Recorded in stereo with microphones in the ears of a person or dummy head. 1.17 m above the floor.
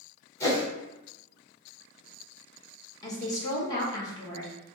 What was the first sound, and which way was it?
A whoosh, 15° left (ahead or behind).